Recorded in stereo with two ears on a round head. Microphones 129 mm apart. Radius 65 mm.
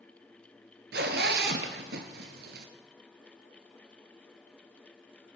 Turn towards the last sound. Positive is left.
turn(degrees=-80)